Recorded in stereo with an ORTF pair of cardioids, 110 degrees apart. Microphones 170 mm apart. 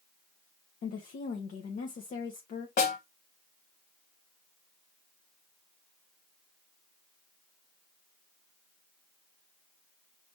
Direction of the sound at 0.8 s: 50° left.